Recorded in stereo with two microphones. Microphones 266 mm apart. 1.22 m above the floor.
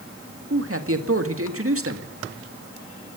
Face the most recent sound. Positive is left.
turn(degrees=-55)  # may be behind; listen again after turning